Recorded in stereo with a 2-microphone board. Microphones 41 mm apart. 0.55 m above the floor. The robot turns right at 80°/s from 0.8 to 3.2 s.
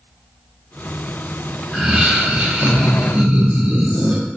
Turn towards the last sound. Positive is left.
turn(degrees=-60)